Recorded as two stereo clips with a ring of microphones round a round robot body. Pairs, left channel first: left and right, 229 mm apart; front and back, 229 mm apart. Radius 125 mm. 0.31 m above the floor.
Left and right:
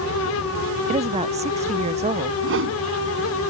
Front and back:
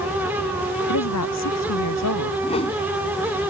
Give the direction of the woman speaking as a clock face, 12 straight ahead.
1 o'clock.